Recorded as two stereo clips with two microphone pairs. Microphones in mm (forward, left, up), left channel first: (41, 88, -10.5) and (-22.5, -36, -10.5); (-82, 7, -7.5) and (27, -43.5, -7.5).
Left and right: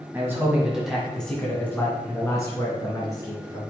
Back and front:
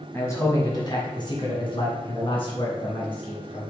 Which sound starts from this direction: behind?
A man speaking, at 0.1 s.